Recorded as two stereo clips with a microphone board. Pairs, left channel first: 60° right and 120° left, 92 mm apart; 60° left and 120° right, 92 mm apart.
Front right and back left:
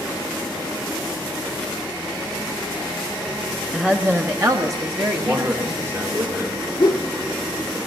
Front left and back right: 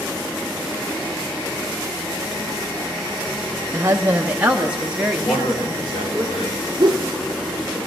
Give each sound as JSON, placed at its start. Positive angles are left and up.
{"t": 3.7, "sound": "a woman speaking", "azimuth_deg": -150, "distance_m": 0.6}
{"t": 5.2, "sound": "a man speaking", "azimuth_deg": 55, "distance_m": 2.5}
{"t": 6.8, "sound": "a whoosh", "azimuth_deg": -85, "distance_m": 0.8}